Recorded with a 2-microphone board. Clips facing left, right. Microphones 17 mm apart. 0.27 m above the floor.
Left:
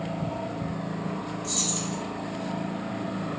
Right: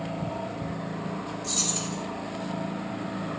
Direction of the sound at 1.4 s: 35° right (ahead or behind).